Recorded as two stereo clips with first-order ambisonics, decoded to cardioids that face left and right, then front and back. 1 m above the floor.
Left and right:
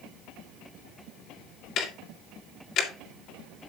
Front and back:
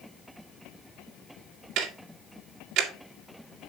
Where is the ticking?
135° left, 1.9 m.